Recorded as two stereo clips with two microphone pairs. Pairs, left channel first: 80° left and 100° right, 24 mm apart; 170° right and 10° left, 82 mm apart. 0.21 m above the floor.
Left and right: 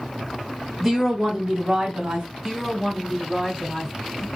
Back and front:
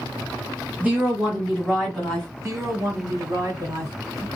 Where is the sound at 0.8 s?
Straight ahead, 1.0 m; by 2.3 s 90° right, 1.3 m.